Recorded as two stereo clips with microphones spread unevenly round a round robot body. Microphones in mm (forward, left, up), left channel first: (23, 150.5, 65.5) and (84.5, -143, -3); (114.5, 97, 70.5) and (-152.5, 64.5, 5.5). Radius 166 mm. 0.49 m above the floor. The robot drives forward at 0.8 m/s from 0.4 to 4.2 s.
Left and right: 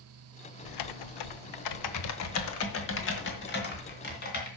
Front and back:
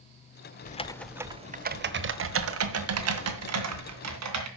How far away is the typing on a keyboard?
About 0.7 m.